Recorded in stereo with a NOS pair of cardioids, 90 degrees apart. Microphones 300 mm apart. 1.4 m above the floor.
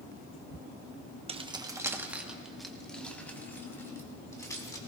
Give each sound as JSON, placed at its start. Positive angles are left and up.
{"t": 1.3, "sound": "keys jangling", "azimuth_deg": -20, "distance_m": 0.9}